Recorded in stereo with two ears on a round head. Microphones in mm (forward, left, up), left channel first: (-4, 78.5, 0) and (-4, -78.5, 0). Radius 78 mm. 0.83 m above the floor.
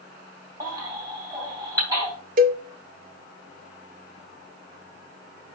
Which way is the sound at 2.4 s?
50° right (ahead or behind).